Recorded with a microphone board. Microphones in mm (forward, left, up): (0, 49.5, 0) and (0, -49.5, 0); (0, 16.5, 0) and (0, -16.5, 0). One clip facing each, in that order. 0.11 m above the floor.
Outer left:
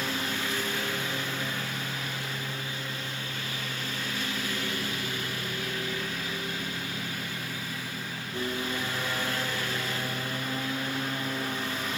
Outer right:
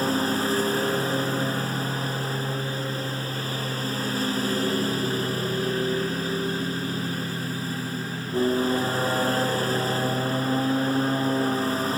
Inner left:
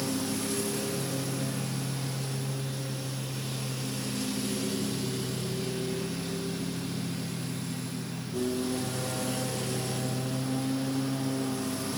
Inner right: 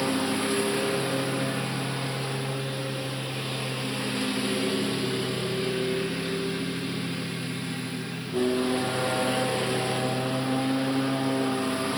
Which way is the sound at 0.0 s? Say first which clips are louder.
Outer right 9 dB, inner right 6 dB; 40° right (ahead or behind).